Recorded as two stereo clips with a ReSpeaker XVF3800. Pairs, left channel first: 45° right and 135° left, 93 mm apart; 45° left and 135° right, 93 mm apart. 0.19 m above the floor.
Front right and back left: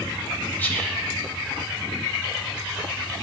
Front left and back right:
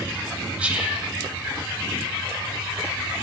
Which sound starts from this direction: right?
Whispering, at 0.6 s.